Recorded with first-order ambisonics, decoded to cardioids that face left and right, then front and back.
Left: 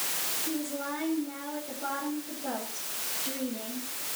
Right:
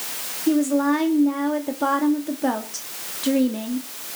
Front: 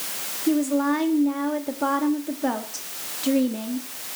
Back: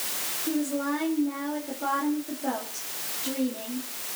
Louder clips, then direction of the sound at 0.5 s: Right 14 dB, front 7 dB; 60° right.